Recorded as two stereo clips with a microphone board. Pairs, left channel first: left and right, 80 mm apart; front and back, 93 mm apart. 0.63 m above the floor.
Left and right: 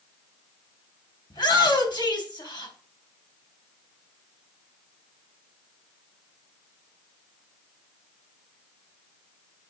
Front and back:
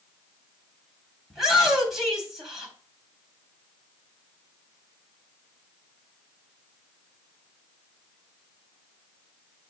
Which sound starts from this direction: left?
A shout, at 1.3 s.